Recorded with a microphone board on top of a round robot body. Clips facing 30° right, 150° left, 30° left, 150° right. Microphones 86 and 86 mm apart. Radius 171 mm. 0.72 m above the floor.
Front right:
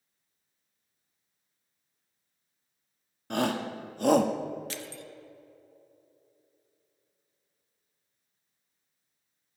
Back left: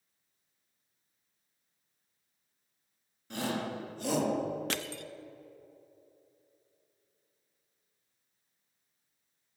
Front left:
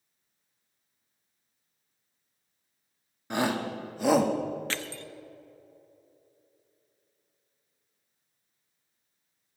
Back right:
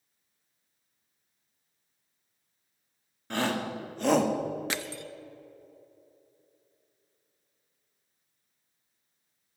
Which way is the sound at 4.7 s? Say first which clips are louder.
Back left 3 dB, back right 1 dB; 135° left.